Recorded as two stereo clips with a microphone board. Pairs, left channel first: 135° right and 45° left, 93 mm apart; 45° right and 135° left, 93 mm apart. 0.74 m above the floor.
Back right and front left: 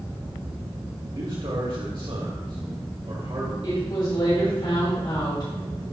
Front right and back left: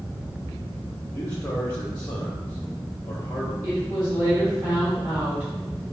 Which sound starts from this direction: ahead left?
A man speaking, at 1.1 s.